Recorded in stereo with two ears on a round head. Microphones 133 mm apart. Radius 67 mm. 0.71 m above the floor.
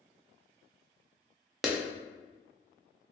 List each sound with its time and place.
1.6 s a clap: centre (ahead or behind), 0.6 m